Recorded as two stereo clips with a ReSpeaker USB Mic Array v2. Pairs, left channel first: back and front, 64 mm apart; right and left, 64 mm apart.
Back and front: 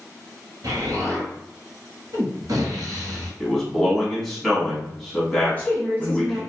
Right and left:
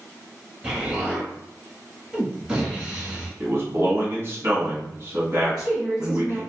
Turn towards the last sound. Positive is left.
turn(degrees=160)